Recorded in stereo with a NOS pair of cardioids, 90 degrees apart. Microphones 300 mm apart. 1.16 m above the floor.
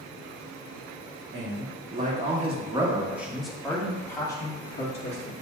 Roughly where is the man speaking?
Ahead right.